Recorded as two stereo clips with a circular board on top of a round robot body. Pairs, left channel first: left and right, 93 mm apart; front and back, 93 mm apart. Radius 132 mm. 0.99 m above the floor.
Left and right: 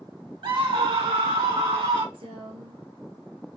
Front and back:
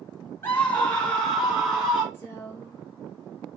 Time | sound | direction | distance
0.4 | a scream | 65° right | 1.4 m
2.1 | a woman speaking | 70° right | 3 m